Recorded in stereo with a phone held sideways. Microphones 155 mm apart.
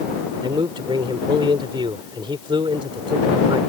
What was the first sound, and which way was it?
A man speaking, 30° right (ahead or behind).